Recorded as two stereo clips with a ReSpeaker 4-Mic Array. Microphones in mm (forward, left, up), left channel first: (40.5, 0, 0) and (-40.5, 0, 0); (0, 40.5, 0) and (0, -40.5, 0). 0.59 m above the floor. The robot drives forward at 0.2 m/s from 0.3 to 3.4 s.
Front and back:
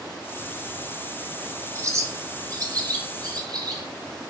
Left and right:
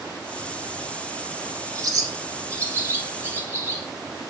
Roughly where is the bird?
Behind right.